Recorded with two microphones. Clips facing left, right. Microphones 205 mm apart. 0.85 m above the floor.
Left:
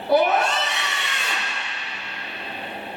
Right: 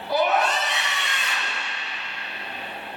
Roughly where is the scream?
Left.